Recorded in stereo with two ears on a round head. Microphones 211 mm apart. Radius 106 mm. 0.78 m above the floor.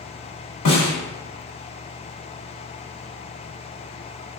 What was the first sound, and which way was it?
A snare drum, 65° left (ahead or behind).